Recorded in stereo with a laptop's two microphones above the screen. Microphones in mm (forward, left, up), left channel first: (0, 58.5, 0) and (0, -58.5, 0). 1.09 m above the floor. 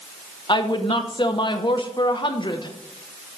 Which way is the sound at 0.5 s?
40° left (ahead or behind).